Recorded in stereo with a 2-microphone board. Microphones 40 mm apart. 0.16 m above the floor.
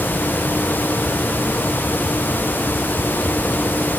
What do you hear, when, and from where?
Only background noise.